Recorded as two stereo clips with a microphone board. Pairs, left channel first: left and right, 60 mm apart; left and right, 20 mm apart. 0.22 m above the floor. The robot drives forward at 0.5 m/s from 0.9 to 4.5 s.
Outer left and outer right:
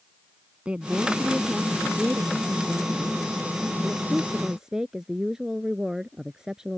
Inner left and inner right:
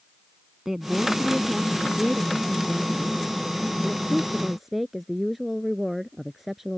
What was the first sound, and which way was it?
A woman speaking, 20° right (ahead or behind).